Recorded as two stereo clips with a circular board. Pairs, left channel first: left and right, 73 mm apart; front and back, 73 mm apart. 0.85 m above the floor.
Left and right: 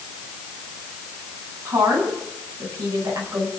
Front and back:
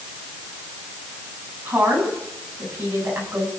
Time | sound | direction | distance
1.6 | a woman speaking | 115° right | 8 m